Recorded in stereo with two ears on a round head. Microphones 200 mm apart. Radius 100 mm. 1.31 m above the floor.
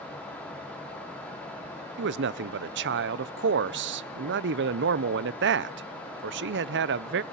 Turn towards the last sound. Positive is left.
turn(degrees=-55)  # may be behind; listen again after turning